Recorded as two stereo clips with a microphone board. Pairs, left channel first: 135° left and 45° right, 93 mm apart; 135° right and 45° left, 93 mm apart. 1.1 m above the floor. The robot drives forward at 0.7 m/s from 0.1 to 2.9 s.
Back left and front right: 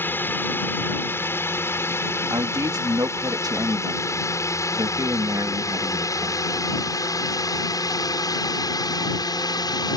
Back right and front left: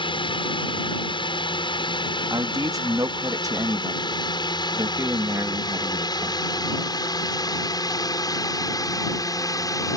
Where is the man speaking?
Straight ahead.